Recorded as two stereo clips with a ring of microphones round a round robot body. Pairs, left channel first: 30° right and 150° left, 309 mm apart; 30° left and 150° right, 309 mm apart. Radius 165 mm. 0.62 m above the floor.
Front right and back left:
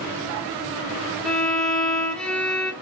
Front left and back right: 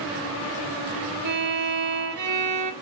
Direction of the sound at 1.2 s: 115° right.